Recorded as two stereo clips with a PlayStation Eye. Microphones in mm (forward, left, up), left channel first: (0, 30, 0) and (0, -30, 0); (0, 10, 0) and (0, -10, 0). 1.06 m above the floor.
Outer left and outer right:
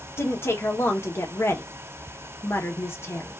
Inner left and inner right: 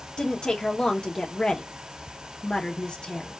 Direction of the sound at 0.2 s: 45° left (ahead or behind).